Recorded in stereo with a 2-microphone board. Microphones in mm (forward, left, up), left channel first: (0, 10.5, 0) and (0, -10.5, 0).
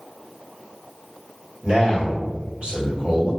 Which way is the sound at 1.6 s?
55° right (ahead or behind).